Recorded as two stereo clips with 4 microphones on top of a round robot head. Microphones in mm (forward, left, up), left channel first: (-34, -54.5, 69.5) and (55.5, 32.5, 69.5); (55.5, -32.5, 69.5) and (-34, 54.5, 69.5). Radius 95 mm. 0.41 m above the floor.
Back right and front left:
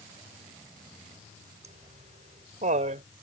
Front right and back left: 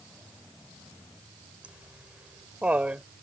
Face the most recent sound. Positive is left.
turn(degrees=55)